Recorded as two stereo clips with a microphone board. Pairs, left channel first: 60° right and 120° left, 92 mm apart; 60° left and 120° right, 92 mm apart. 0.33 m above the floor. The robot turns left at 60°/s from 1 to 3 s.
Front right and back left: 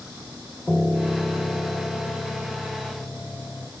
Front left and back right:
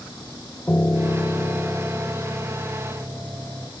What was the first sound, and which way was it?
A piano, 5° left.